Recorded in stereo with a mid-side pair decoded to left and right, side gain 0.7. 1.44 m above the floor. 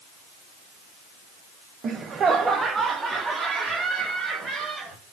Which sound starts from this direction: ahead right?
Laughter, at 1.8 s.